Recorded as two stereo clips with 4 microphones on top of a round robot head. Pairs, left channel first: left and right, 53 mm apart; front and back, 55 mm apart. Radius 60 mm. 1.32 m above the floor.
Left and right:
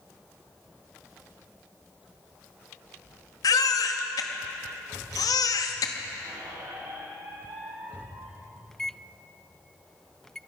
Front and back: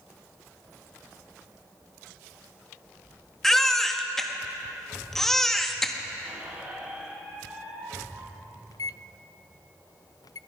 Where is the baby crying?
85° left, 1.7 m.